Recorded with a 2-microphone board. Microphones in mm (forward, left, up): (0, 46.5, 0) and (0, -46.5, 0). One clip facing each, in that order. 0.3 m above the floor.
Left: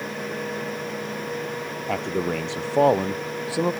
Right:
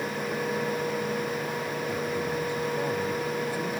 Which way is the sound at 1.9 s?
80° left.